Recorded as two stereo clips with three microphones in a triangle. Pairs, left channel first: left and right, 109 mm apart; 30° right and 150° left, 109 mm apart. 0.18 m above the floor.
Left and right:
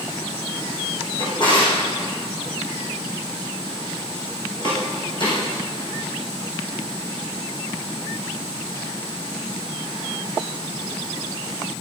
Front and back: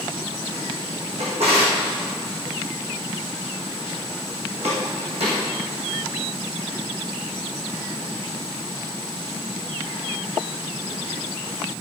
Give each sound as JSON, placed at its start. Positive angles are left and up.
{"t": 1.2, "sound": "a drawer", "azimuth_deg": 135, "distance_m": 4.5}